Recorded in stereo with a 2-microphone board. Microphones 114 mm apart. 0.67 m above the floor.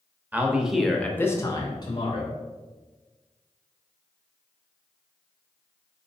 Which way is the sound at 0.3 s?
15° right (ahead or behind).